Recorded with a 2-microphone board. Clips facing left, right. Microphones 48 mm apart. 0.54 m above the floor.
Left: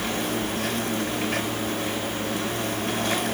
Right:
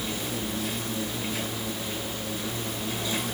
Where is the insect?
65° left (ahead or behind), 5 m.